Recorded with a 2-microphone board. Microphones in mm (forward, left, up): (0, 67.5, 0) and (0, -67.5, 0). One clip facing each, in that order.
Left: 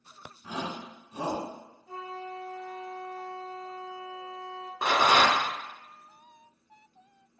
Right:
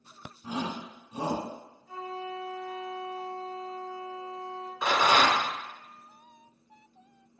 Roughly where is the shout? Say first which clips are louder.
Right 2 dB; centre.